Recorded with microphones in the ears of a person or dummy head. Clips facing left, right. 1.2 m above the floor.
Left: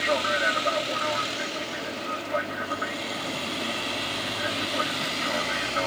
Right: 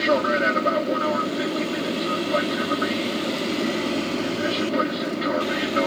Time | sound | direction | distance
0.0 | an aircraft | 50° right (ahead or behind) | ?